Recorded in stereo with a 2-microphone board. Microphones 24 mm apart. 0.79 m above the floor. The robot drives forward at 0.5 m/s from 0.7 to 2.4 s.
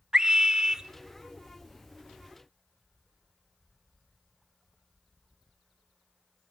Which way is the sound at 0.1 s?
25° right (ahead or behind).